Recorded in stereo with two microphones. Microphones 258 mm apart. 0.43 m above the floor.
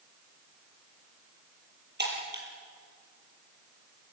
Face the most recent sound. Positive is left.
turn(degrees=-40)  # may be behind; listen again after turning